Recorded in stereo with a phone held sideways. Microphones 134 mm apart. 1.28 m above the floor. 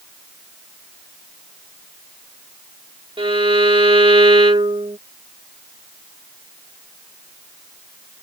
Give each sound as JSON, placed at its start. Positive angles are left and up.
{"t": 3.2, "sound": "a violin", "side_deg": -35}